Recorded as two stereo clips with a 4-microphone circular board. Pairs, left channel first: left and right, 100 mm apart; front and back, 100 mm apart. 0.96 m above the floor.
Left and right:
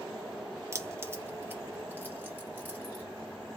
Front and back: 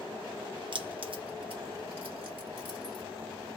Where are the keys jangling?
150° right, 0.6 m; by 3.0 s 160° right, 2 m.